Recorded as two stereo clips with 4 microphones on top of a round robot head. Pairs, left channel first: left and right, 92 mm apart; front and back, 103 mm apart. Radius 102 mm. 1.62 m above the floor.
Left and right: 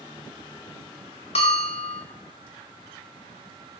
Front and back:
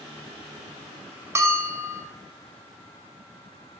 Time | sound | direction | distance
1.4 | a bell | 120° left | 1.8 m